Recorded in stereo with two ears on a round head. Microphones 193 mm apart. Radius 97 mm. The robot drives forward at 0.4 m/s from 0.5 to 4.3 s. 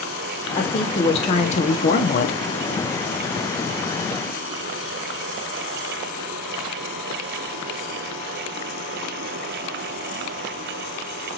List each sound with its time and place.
0.6 s a woman speaking: 25° left (ahead or behind), 1.3 m; by 2.4 s 50° left (ahead or behind), 0.7 m